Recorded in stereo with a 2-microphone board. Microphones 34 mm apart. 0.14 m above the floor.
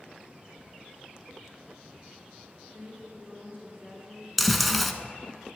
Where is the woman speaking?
50° right (ahead or behind), 2.5 m.